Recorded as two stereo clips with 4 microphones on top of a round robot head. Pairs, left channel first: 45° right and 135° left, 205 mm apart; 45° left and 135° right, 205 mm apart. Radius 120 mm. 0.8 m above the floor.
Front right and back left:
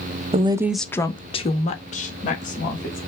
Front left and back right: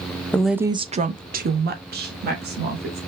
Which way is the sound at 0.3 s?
120° left.